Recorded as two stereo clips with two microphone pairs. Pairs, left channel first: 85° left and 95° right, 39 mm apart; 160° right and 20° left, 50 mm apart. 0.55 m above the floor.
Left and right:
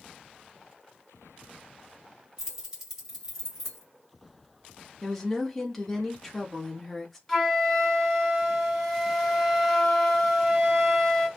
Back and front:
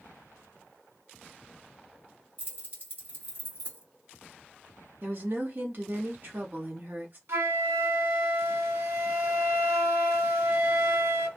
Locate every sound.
2.4 s keys jangling: 20° right, 1.6 m
5.0 s a woman speaking: straight ahead, 0.9 m
7.3 s a flute: straight ahead, 1.1 m